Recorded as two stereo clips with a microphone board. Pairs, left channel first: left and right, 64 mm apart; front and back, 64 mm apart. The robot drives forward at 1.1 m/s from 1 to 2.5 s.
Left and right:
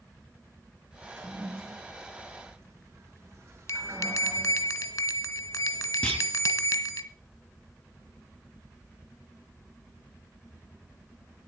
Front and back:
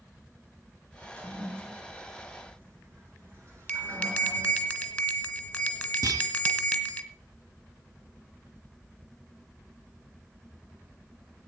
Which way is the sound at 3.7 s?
70° left.